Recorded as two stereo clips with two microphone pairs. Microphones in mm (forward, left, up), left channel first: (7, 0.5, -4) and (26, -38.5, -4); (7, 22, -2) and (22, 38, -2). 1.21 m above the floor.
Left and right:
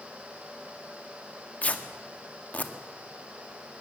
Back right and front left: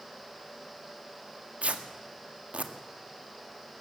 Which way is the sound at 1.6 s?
60° left.